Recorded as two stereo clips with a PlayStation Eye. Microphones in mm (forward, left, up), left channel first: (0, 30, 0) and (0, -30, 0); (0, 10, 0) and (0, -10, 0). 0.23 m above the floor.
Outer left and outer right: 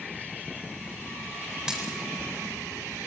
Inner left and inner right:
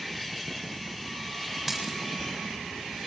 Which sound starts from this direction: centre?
A dropped coin, at 1.7 s.